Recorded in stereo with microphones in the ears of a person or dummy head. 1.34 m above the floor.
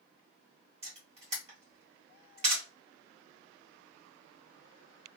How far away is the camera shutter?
About 1.5 m.